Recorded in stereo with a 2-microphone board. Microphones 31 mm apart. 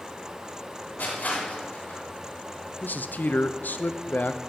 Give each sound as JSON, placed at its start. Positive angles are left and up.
{"t": 1.0, "sound": "crushing", "side_deg": 70, "distance_m": 4.0}
{"t": 2.8, "sound": "a man speaking", "side_deg": 75, "distance_m": 0.6}